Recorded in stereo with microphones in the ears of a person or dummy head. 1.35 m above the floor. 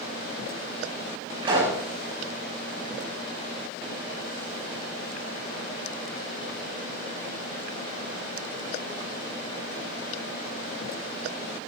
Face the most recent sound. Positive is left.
turn(degrees=-20)  # may be behind; listen again after turning